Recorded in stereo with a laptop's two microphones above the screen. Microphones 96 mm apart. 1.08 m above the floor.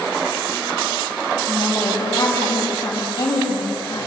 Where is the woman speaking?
45° left (ahead or behind), 7 m.